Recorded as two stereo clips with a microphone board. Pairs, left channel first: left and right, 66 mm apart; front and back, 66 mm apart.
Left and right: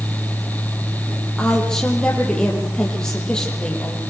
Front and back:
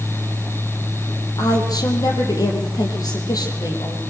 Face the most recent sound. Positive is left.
turn(degrees=10)